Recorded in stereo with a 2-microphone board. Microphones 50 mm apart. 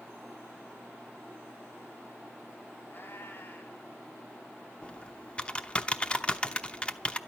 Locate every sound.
2.9 s a cat meowing: 40° left (ahead or behind), 3 m
4.8 s typing on a keyboard: 20° left (ahead or behind), 0.9 m